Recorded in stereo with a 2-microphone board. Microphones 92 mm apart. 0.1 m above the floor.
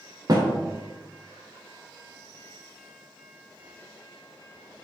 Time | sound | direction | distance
0.3 | a thud | 45° right (ahead or behind) | 3 m